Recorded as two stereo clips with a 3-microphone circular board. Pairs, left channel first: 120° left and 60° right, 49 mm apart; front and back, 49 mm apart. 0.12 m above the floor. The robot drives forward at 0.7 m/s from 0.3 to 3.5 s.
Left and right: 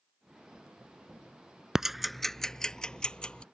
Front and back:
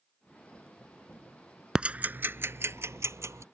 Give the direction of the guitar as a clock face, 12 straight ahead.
I don't hear a guitar.